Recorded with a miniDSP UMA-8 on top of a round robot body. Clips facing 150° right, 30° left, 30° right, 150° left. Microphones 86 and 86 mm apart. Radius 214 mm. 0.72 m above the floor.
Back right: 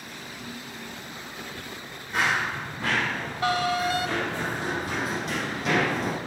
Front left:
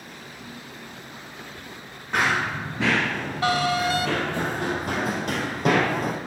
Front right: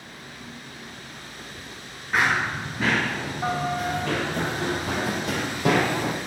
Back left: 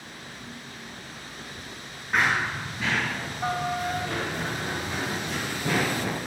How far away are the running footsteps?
About 0.8 m.